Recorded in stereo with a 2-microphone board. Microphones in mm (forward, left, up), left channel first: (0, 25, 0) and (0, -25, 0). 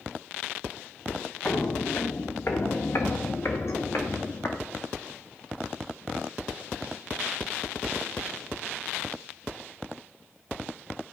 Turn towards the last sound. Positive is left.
turn(degrees=65)  # may be behind; listen again after turning